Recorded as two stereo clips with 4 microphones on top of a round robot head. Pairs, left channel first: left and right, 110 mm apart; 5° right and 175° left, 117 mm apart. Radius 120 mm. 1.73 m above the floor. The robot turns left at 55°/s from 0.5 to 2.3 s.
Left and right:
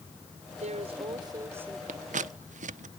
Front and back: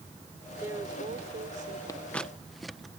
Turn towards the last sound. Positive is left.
turn(degrees=-95)